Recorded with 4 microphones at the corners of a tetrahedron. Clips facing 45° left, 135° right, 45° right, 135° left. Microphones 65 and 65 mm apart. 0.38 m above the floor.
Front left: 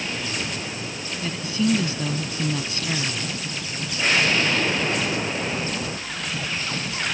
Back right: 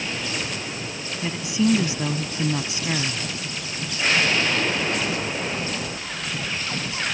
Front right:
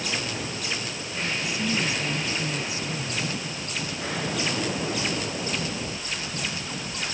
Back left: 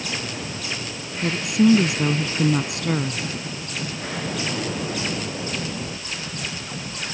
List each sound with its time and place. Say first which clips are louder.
1.2 s a woman speaking: back right 2 dB, back left 12 dB; 150° left